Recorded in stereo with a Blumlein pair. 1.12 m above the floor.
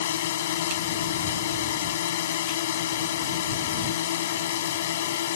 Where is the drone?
60° left.